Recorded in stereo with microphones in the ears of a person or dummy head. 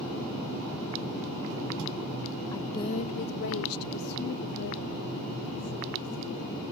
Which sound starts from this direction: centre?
A woman speaking, at 2.5 s.